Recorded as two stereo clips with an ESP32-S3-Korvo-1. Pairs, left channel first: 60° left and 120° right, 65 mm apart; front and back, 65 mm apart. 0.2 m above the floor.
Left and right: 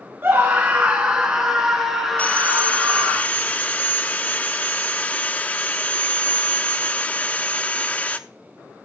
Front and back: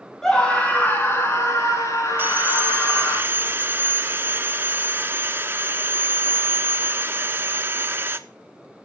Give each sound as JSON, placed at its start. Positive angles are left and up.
{"t": 0.2, "sound": "a scream", "azimuth_deg": -80, "distance_m": 1.6}
{"t": 2.2, "sound": "sawing", "azimuth_deg": 125, "distance_m": 0.6}